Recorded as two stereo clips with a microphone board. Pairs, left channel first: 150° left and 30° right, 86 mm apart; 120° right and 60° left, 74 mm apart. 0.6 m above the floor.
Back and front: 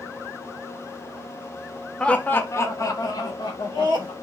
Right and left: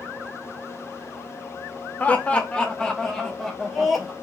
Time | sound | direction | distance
2.0 | laughter | 150° right | 0.6 m